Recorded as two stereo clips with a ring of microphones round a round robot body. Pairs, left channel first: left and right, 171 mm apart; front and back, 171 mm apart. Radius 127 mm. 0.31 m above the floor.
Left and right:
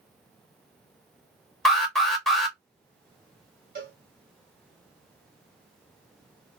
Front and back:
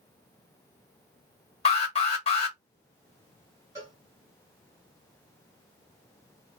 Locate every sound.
1.6 s an alarm: straight ahead, 1.5 m
3.8 s a cowbell: 110° right, 1.9 m